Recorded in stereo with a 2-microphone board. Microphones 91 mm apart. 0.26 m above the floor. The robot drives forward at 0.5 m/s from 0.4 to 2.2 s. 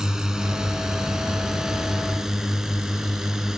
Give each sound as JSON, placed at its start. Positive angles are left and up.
{"t": 0.0, "sound": "a drone", "side_deg": -5}